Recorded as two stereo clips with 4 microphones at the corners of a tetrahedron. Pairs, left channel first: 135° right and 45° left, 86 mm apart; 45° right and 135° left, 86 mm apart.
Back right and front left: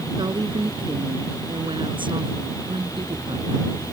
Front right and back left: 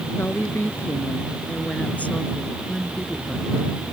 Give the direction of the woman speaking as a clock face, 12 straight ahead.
11 o'clock.